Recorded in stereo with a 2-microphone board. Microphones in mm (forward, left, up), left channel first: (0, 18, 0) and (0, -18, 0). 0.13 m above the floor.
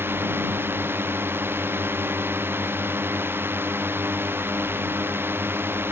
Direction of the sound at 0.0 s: 80° right.